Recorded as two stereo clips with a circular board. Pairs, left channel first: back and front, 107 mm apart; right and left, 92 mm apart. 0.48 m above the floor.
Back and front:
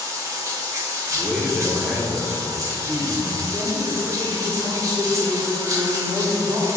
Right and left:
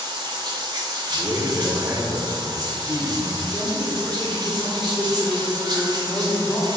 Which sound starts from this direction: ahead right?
A man speaking, at 3.5 s.